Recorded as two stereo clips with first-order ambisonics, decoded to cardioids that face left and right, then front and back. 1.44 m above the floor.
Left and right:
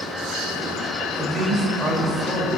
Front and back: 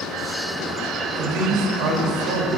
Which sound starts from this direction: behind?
A man speaking, at 1.2 s.